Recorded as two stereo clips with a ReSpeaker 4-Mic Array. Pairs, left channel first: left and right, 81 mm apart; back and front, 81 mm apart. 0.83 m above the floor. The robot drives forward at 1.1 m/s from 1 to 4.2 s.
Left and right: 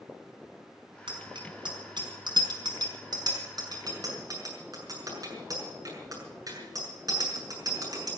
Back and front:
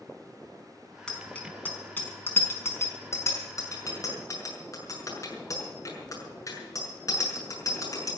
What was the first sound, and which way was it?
A bicycle bell, 100° right.